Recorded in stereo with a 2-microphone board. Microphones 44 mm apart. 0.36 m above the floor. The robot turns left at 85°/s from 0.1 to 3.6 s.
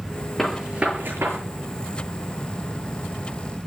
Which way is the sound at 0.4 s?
5° left (ahead or behind).